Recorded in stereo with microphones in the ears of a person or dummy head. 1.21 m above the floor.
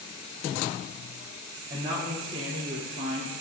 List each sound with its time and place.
1.7 s a woman speaking: 20° right (ahead or behind), 1.0 m; by 3.3 s 45° right (ahead or behind), 1.8 m